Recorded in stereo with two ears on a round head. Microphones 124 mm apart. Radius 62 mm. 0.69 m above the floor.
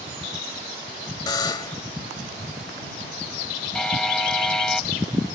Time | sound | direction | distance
1.3 | a buzzer | 30° left (ahead or behind) | ?
3.8 | a buzzer | 5° left (ahead or behind) | ?